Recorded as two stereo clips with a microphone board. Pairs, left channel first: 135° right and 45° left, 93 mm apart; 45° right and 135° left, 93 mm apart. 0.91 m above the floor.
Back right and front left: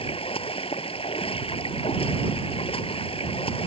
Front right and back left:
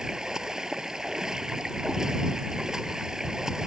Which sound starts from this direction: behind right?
Running water, at 0.0 s.